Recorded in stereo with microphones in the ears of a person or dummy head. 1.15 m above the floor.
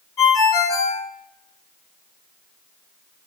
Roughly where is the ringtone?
Centre.